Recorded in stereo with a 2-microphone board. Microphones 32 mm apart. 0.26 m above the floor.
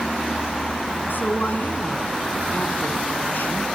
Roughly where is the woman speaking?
Left.